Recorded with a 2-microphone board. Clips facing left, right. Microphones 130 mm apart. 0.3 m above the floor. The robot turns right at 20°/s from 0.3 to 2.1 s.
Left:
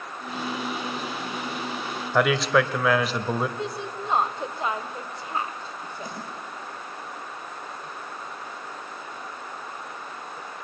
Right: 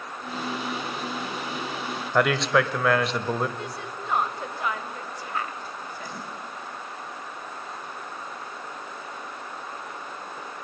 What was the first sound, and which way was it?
A man speaking, centre (ahead or behind).